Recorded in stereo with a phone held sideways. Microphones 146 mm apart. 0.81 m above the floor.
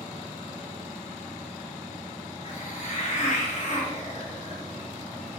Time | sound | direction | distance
2.4 | a hiss | 55° left (ahead or behind) | 1.9 m